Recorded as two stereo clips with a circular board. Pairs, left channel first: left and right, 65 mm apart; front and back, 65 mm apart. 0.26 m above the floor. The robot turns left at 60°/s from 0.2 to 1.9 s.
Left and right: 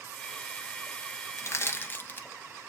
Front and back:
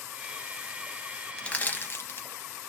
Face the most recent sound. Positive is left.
turn(degrees=40)